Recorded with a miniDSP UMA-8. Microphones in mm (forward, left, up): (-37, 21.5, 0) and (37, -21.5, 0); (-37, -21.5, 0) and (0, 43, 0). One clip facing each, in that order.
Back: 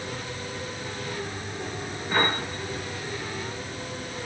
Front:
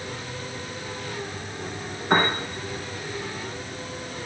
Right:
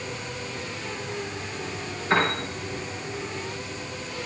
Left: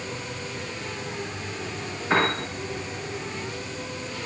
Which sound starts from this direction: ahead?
A piano, at 2.1 s.